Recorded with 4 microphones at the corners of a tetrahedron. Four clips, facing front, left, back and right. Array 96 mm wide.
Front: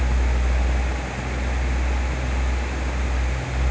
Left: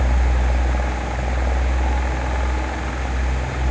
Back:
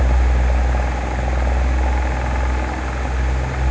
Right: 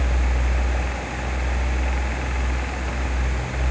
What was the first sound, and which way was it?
Only background noise.